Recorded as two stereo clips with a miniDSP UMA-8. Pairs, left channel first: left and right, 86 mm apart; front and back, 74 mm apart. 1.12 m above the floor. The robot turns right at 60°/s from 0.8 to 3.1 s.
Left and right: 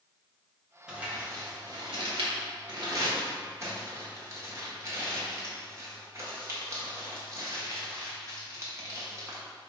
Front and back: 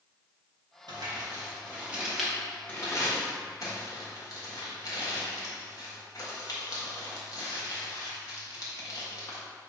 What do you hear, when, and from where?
0.9 s crumpling: 170° right, 1.5 m; by 9.4 s 35° right, 1.5 m